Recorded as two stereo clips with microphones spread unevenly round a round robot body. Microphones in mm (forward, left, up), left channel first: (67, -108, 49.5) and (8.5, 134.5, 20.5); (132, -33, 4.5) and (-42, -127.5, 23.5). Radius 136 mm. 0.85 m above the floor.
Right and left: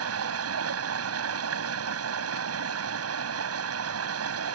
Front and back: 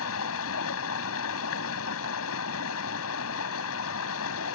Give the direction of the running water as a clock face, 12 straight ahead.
10 o'clock.